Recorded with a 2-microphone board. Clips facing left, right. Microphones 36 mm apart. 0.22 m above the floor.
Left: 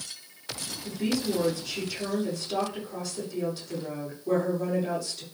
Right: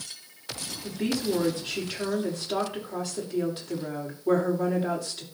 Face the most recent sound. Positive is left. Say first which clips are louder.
# right 1 dB
turn(degrees=-35)  # may be behind; listen again after turning